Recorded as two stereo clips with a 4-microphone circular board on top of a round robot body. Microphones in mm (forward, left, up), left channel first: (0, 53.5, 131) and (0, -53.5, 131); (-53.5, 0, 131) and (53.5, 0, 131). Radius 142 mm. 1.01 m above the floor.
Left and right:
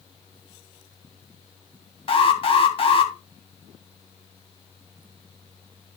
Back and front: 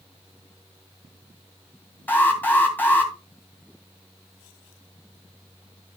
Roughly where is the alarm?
Left.